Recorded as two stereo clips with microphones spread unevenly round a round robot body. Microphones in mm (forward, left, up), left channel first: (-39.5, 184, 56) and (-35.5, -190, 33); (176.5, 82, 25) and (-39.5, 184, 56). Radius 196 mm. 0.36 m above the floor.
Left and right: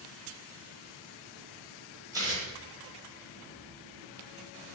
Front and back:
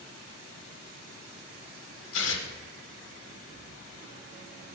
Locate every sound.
2.1 s tearing paper: 10° right, 1.2 m